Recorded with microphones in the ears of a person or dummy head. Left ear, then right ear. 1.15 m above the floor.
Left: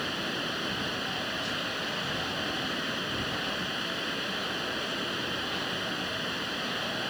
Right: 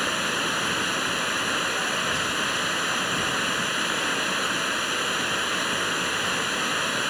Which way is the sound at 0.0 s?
35° right (ahead or behind).